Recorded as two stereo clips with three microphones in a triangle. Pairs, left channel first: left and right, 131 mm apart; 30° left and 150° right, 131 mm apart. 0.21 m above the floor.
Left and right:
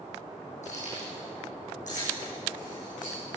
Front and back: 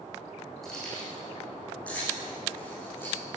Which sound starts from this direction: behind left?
Keys jangling, at 0.6 s.